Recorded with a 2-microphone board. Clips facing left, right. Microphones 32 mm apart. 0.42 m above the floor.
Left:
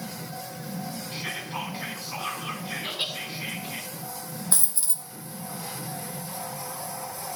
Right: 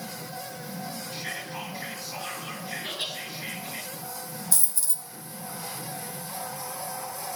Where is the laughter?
35° left (ahead or behind), 5 m.